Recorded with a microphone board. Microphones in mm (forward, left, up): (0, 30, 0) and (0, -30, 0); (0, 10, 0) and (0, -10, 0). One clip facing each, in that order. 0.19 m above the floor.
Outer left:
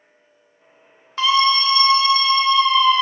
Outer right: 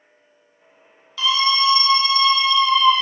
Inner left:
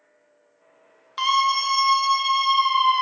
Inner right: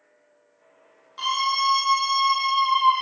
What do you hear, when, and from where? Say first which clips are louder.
1.2 s a scream: outer left 3 dB, inner left 3 dB; 45° left (ahead or behind), 1.7 m; by 3.0 s 35° left (ahead or behind), 3 m